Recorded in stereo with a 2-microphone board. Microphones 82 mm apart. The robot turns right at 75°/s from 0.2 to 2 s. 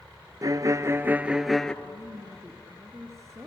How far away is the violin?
About 0.7 m.